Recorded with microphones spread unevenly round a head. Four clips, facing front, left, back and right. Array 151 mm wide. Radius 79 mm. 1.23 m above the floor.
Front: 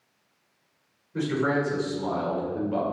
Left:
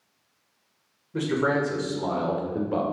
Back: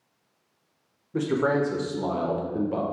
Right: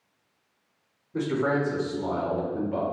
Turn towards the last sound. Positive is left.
turn(degrees=130)